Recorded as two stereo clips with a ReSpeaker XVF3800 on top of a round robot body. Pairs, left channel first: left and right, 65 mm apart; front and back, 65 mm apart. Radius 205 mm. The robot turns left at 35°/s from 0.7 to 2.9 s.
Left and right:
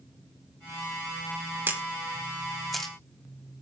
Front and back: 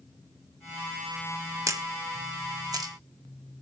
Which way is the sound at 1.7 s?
145° right.